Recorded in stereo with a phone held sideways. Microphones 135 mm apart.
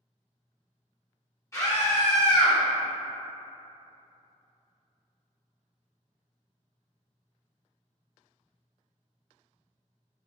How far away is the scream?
About 1.7 m.